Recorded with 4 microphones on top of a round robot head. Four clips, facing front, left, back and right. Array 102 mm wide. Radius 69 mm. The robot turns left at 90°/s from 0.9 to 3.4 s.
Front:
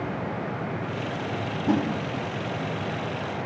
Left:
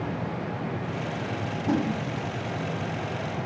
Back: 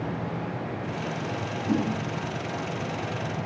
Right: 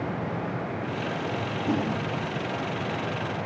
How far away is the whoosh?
About 1.4 m.